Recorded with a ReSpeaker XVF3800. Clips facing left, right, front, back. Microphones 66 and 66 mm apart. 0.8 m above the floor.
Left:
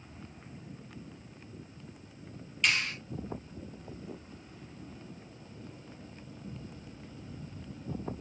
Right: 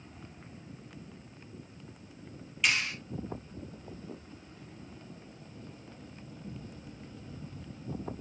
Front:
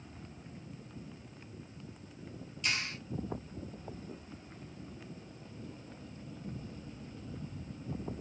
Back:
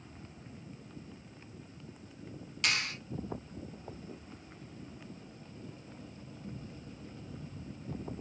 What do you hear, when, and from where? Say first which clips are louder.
2.6 s a clap: even, back 3 dB; 175° right, 2.5 m